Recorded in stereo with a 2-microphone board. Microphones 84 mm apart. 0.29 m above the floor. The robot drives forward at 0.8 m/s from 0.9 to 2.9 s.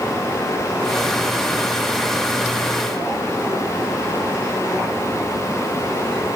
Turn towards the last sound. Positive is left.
No sound to turn to.